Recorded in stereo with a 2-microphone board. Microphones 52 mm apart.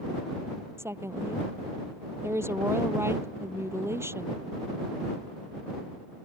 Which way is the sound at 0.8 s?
60° right (ahead or behind).